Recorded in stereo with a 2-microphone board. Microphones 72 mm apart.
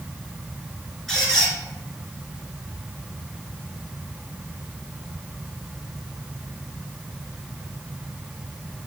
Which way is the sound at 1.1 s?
5° left (ahead or behind).